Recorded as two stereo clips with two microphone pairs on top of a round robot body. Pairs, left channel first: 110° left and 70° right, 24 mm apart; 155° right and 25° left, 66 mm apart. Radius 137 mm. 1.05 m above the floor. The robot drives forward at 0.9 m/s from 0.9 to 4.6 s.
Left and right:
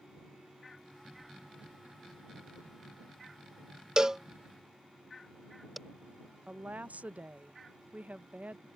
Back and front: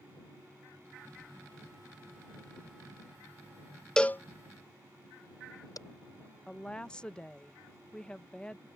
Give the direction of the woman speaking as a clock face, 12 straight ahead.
3 o'clock.